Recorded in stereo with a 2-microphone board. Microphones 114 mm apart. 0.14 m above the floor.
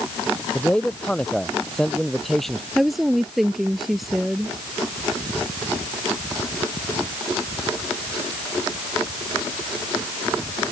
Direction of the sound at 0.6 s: 10° left (ahead or behind).